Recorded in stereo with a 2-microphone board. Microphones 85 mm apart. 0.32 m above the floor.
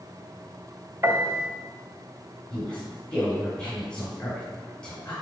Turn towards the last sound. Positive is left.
turn(degrees=10)  # may be behind; listen again after turning